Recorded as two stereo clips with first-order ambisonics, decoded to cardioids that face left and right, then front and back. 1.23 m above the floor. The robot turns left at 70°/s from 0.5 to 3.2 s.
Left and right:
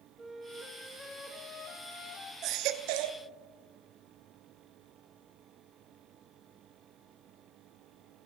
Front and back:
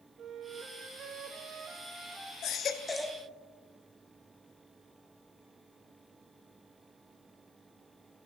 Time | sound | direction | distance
0.2 | a flute | 155° right | 0.9 m
2.4 | a baby crying | 45° right | 0.7 m